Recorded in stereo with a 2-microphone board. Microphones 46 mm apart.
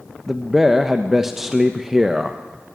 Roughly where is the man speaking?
Centre.